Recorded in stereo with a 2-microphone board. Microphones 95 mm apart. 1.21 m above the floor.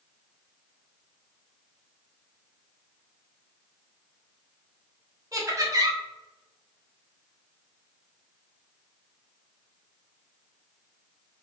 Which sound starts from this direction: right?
Laughter, at 5.3 s.